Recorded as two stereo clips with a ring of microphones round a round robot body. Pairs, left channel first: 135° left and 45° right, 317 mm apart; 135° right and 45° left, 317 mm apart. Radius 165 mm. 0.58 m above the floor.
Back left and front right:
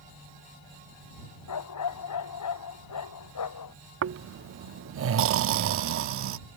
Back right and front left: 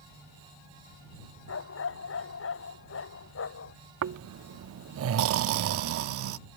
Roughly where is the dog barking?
Behind.